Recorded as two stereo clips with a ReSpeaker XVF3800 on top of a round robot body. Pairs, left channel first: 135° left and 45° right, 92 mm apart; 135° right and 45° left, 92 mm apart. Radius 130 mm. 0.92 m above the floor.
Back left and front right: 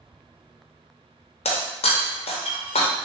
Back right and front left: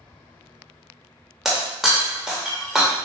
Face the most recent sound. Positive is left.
turn(degrees=135)